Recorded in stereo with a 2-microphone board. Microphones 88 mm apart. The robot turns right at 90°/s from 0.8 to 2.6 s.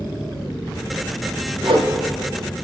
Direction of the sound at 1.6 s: 70° right (ahead or behind).